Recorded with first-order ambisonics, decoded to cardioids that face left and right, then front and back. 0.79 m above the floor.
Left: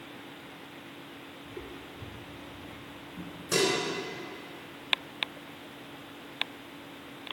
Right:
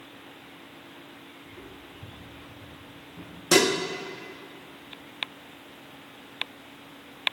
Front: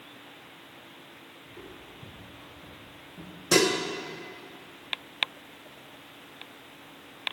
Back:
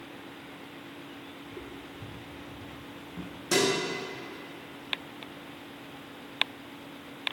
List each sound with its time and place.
1.4 s footsteps: 135° left, 2.5 m; by 3.4 s straight behind, 2.0 m
3.5 s dishes clattering: 80° right, 0.9 m